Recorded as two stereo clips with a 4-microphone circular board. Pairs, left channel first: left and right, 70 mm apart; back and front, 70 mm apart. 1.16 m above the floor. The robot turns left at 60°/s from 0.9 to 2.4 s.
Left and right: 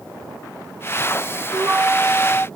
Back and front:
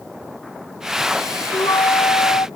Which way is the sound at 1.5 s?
145° right.